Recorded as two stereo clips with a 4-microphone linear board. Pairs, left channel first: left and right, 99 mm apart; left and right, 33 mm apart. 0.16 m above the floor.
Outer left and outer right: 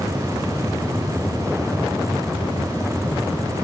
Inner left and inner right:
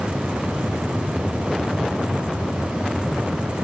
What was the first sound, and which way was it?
Only background noise.